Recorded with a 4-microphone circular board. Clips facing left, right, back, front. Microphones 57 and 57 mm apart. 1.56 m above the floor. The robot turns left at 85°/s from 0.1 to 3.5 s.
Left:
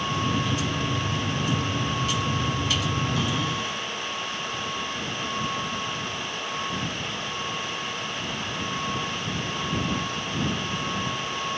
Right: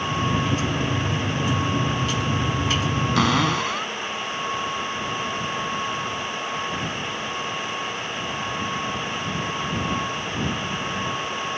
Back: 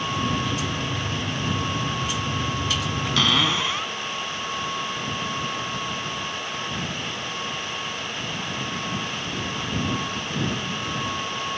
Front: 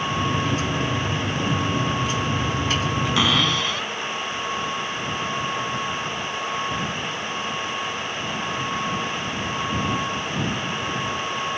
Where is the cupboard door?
75° right; by 3.9 s 105° right.